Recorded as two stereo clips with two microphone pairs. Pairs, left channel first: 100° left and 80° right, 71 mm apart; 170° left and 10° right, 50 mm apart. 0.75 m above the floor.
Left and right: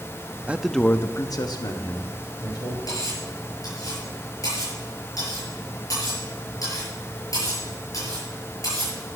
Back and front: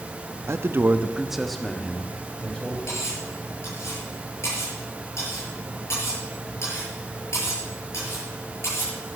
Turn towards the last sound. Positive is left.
turn(degrees=135)